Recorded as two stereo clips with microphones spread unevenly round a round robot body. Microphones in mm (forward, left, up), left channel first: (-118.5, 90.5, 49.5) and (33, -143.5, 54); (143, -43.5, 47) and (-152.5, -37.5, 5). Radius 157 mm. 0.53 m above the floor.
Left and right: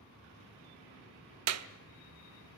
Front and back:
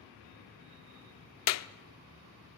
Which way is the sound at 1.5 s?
35° right.